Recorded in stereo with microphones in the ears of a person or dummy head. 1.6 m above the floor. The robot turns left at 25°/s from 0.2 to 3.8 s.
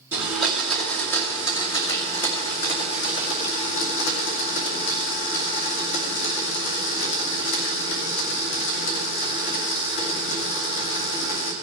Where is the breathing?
I don't hear breathing.